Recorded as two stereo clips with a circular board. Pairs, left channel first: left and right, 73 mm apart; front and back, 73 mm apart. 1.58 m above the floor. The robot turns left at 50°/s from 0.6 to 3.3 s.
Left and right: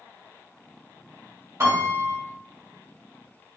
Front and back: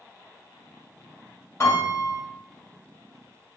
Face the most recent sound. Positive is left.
turn(degrees=-125)